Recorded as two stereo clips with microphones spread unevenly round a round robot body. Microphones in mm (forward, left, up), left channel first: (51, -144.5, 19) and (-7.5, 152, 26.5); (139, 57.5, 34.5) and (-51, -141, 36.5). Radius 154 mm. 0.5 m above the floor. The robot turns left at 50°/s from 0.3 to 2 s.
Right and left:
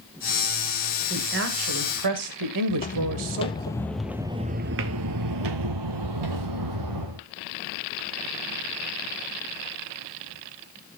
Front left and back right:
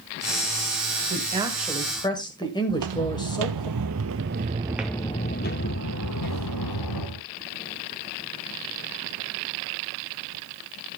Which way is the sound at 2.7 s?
140° right.